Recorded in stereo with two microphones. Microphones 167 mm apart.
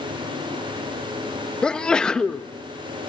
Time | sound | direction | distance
1.6 | a sneeze | 5° left (ahead or behind) | 0.9 m